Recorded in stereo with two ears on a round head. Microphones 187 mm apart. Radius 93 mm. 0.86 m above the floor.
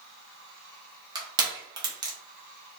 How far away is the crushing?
About 0.7 m.